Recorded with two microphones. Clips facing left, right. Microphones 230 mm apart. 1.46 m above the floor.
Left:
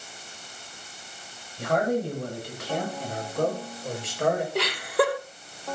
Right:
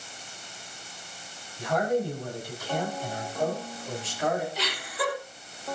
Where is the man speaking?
70° left (ahead or behind), 9 m; by 4.5 s 65° left (ahead or behind), 7 m.